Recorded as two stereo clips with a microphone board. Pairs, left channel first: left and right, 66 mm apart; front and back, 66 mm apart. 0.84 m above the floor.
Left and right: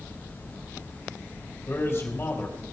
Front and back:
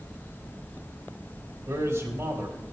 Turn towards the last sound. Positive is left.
turn(degrees=140)